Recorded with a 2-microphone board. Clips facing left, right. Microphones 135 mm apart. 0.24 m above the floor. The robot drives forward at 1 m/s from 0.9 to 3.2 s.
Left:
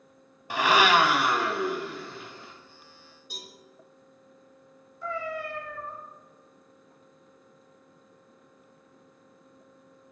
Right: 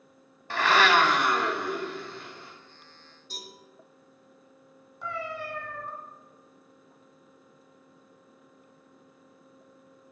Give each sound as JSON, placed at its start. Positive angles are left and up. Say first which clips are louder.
{"t": 0.5, "sound": "a blender", "louder": "left 1 dB", "side_deg": 15, "distance_m": 0.6}
{"t": 3.3, "sound": "a cowbell", "louder": "right 1 dB", "side_deg": 15, "distance_m": 2.5}
{"t": 5.0, "sound": "a cat meowing", "louder": "left 2 dB", "side_deg": -70, "distance_m": 1.7}